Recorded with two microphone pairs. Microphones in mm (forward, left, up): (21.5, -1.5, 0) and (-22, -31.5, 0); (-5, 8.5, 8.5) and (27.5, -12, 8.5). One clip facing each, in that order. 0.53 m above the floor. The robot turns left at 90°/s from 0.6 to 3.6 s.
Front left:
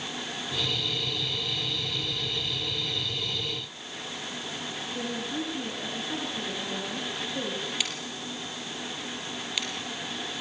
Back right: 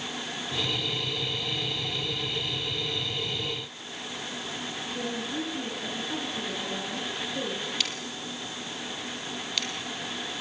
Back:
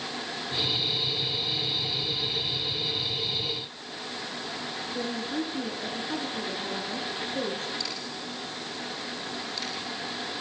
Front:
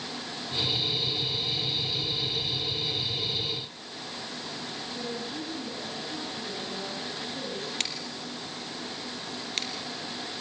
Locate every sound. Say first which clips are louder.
4.9 s a woman speaking: even, back 5 dB; 120° left, 5.5 m
7.8 s scissors: even, even; 45° right, 3.5 m